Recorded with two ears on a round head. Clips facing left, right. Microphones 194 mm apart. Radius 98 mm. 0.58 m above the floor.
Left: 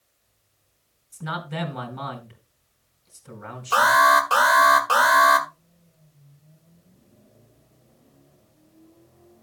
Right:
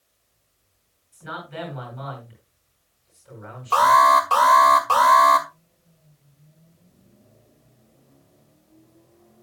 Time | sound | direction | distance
1.1 | a man speaking | 65° left (ahead or behind) | 4.5 m
3.7 | an alarm | 15° left (ahead or behind) | 1.8 m